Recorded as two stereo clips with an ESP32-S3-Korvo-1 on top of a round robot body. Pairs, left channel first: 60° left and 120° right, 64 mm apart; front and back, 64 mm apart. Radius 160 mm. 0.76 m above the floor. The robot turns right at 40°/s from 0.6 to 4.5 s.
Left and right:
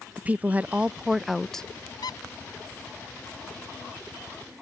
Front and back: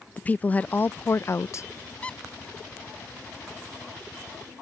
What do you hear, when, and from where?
0.2 s a woman speaking: 60° right; by 1.7 s 15° right
2.0 s a squeak: 70° left; by 2.2 s 80° left